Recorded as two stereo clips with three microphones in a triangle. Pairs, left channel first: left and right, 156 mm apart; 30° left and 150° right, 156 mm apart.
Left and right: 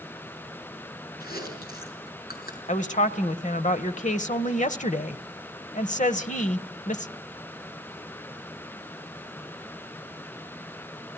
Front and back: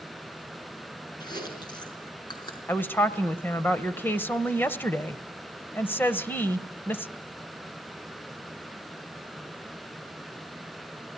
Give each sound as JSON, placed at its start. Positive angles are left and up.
{"t": 1.2, "sound": "chewing", "azimuth_deg": 90, "distance_m": 5.0}
{"t": 2.7, "sound": "a woman speaking", "azimuth_deg": 105, "distance_m": 1.3}